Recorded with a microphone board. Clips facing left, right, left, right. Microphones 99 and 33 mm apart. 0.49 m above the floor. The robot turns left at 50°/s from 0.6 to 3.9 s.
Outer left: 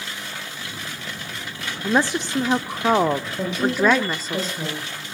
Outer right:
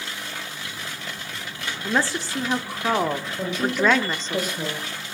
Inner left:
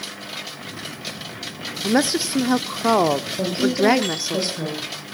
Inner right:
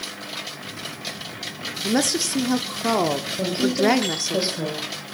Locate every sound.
1.8 s a woman speaking: 15° left (ahead or behind), 0.8 m; by 4.4 s 10° left (ahead or behind), 0.8 m
3.4 s a woman speaking: 15° left (ahead or behind), 9 m; by 4.9 s 10° right (ahead or behind), 9 m